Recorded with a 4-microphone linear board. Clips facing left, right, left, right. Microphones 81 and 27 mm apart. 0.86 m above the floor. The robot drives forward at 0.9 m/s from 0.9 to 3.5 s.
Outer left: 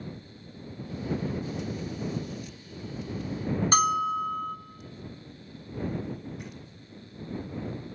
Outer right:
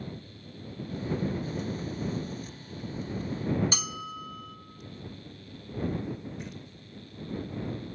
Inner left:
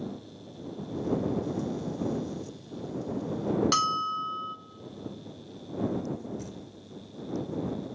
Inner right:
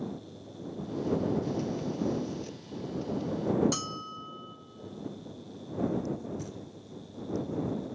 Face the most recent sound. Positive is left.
turn(degrees=10)  # may be behind; listen again after turning